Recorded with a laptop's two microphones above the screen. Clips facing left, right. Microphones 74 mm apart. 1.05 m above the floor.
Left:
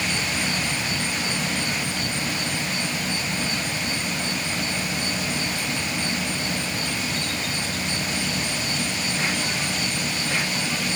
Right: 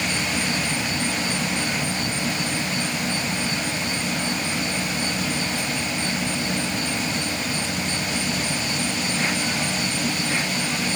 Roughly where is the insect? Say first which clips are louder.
Right 1 dB; right.